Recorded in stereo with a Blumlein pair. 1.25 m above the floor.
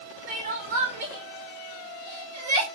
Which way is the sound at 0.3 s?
65° right.